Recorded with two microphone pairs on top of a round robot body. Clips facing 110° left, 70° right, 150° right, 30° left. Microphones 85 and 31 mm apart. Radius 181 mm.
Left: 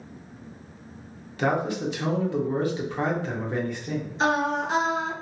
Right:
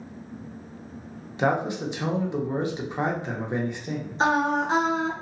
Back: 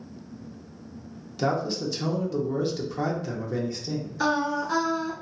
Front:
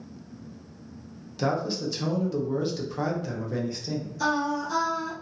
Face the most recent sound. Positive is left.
turn(degrees=-105)